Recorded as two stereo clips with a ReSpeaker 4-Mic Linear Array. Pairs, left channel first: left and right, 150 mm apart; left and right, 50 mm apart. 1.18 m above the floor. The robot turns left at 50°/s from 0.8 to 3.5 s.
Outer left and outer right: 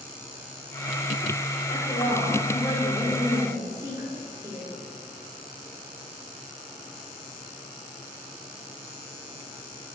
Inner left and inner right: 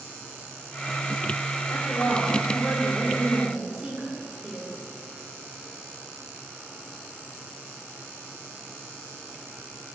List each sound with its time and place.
1.7 s a woman speaking: 70° left, 3 m; by 4.7 s 20° right, 3 m